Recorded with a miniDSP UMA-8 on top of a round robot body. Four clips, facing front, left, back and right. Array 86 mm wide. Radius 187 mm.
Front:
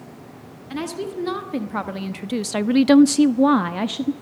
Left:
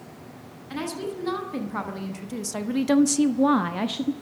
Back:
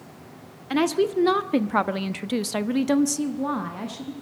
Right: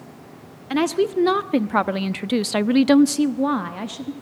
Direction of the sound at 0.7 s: 125° right.